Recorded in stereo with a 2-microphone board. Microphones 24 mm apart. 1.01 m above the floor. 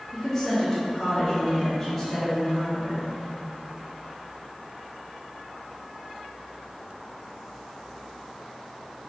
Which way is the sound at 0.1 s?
20° left (ahead or behind).